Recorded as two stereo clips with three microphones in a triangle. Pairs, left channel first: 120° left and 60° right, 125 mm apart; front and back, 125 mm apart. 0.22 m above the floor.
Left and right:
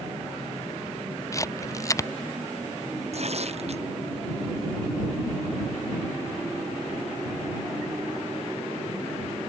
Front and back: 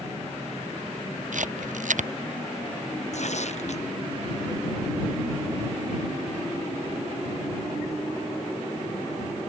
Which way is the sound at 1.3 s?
175° right.